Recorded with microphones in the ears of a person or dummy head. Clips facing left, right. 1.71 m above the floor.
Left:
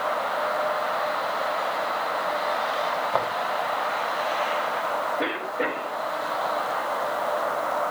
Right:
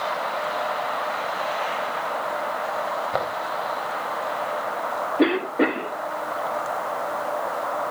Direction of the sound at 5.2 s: 75° right (ahead or behind).